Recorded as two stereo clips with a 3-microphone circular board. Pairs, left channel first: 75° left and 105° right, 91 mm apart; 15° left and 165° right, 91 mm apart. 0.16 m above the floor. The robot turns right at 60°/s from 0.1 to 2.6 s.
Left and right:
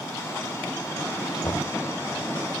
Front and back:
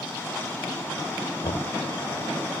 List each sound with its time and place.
1.4 s knocking: 20° left; by 1.8 s 40° left